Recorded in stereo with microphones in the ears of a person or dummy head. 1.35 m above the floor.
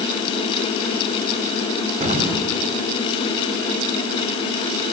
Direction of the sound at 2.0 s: 40° right (ahead or behind).